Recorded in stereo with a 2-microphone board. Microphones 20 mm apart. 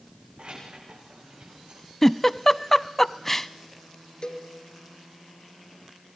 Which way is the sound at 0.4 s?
85° right.